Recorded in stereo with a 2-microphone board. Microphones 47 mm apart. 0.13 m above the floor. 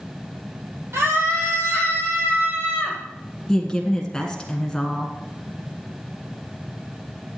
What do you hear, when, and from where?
0.9 s a scream: 65° right (ahead or behind), 4.5 m; by 3.0 s 55° right (ahead or behind), 6.5 m
3.5 s a woman speaking: 15° left (ahead or behind), 1.6 m